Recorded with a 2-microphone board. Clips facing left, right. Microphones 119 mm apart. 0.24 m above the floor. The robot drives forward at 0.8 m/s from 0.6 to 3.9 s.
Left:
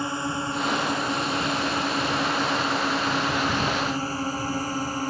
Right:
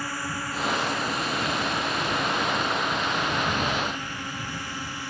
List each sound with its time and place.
0.0 s a drone: 25° left (ahead or behind); by 5.1 s 40° left (ahead or behind)